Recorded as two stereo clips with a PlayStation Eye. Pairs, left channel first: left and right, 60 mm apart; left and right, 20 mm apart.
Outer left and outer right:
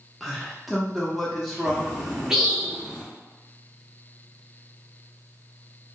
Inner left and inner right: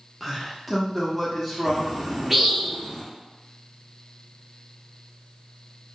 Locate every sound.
0.2 s a man speaking: centre (ahead or behind), 0.6 m
1.6 s a bird: 10° right (ahead or behind), 0.8 m